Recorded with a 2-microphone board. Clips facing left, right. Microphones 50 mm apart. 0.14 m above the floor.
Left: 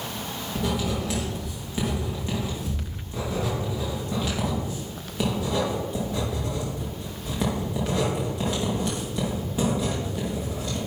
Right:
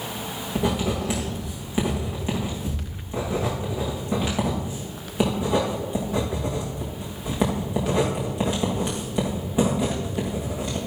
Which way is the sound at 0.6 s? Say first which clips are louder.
Right 3 dB; 20° right (ahead or behind).